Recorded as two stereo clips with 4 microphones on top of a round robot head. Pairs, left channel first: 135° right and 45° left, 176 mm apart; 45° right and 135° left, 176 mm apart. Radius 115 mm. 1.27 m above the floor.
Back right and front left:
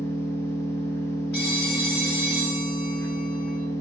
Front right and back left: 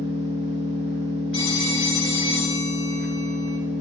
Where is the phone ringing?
110° right, 2.5 m.